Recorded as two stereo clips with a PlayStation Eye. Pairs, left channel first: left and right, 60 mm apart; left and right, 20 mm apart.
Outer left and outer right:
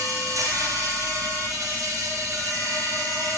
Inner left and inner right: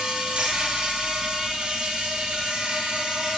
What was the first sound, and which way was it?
An insect, 65° right (ahead or behind).